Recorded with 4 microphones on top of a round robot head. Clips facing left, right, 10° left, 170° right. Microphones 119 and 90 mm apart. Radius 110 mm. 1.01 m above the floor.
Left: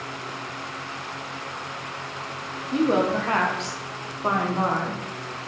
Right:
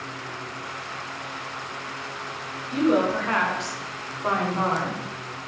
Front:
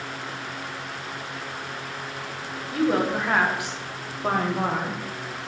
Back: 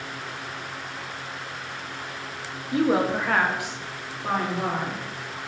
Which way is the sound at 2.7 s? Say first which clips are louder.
Even, back 1 dB; 130° left.